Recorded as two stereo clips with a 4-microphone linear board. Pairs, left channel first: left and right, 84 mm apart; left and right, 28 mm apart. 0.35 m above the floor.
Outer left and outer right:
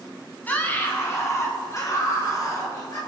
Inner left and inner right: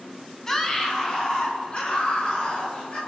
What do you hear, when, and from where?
0.5 s a scream: 20° left (ahead or behind), 3 m; by 3.0 s 45° left (ahead or behind), 6 m